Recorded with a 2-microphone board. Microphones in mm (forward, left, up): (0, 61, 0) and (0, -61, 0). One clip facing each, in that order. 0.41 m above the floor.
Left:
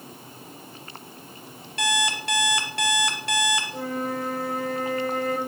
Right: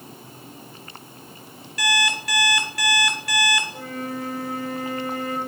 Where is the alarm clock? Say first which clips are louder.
Right 1 dB; 25° left (ahead or behind), 2.5 m.